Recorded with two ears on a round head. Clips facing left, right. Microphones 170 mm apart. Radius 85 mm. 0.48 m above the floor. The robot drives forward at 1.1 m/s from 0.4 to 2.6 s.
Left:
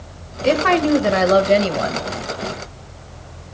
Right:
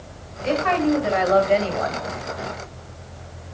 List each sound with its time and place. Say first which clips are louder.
0.4 s a woman speaking: left 4 dB; 65° left (ahead or behind), 1.6 m; by 2.1 s 40° left (ahead or behind), 2.5 m